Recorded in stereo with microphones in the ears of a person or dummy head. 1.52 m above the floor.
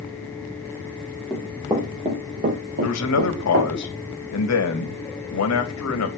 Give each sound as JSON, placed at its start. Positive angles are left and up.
{"t": 1.3, "sound": "running footsteps", "side_deg": -5, "distance_m": 2.5}
{"t": 2.8, "sound": "a man speaking", "side_deg": 85, "distance_m": 2.5}